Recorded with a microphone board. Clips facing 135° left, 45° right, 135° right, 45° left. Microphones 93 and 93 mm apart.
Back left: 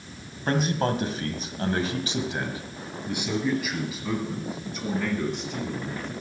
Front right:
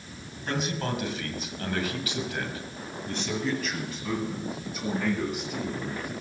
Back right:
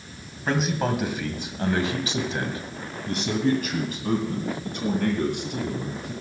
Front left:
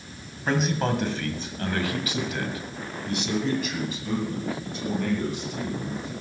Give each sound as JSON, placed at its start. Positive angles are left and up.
{"t": 0.5, "sound": "a man speaking", "azimuth_deg": 135, "distance_m": 1.7}